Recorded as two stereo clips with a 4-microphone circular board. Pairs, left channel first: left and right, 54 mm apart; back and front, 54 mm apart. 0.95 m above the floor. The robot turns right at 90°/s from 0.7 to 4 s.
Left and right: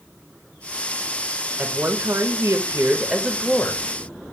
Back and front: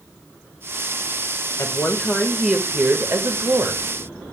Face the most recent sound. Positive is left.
turn(degrees=60)